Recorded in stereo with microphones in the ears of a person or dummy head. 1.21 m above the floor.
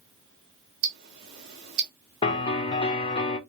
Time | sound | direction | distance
0.8 | ticking | 65° right (ahead or behind) | 1.3 m
2.2 | a piano | 25° left (ahead or behind) | 0.8 m